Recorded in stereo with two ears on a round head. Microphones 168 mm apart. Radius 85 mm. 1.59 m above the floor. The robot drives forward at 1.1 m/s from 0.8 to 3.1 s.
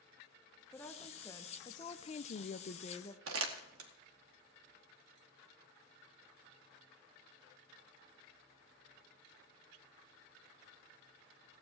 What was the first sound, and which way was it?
A woman speaking, 10° left (ahead or behind).